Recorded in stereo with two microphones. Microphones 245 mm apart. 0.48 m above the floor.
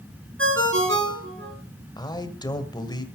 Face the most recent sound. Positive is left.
turn(degrees=15)  # may be behind; listen again after turning